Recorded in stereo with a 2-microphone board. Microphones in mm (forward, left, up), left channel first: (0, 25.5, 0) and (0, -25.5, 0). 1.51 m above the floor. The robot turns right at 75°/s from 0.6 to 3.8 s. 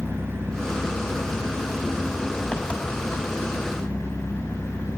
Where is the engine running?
130° right, 6 m; by 5.0 s 110° left, 6 m.